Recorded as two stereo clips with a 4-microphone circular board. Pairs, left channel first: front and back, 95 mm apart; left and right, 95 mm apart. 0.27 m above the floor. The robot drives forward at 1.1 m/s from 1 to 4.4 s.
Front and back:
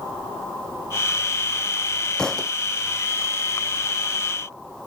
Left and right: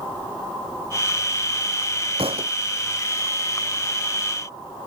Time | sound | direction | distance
2.2 | a thud | 80° right | ?